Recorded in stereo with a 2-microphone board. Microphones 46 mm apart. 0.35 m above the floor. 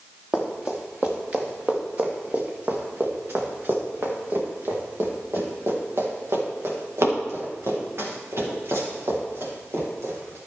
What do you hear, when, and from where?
0.3 s running footsteps: 15° right (ahead or behind), 2.5 m; by 10.4 s 70° right (ahead or behind), 6.5 m